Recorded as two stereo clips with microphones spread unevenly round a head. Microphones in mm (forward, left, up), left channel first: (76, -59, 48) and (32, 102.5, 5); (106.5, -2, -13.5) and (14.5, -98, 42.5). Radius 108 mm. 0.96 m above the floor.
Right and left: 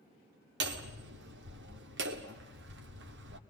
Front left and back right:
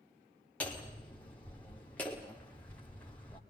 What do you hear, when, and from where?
0.6 s hammering: 130° left, 1.6 m